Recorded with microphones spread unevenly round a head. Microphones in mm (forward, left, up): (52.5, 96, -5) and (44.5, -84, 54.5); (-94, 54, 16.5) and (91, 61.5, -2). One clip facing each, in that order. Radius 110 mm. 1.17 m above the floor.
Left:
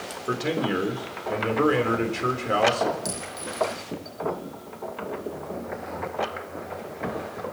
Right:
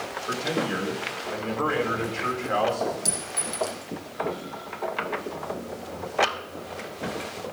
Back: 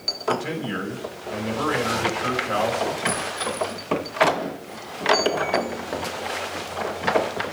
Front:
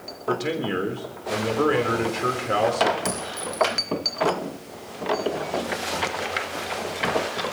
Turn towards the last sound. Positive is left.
turn(degrees=-40)